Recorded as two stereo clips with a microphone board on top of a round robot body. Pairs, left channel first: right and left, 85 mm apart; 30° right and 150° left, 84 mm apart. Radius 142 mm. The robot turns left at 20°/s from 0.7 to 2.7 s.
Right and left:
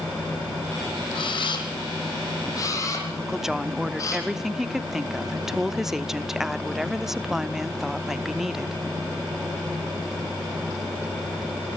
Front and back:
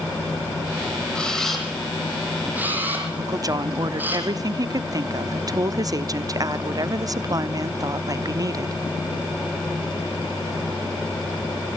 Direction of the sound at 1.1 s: 110° right.